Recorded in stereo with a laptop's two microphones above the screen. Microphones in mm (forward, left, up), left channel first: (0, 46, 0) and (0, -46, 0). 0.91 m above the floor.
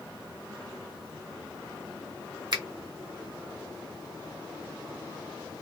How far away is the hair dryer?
I don't hear a hair dryer.